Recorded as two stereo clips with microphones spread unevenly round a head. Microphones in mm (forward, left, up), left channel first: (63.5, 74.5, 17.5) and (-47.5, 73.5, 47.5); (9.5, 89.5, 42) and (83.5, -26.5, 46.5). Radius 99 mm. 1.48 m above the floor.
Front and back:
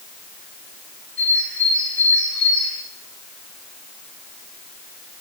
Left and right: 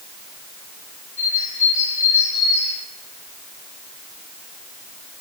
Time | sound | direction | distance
1.2 | a bird | 85° left | 3.5 m